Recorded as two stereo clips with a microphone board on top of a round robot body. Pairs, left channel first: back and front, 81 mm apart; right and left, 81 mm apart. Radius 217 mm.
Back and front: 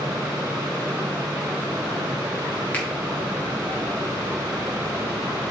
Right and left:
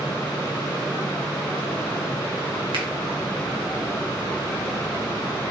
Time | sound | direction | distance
2.7 | a finger snap | 110° left | 2.5 m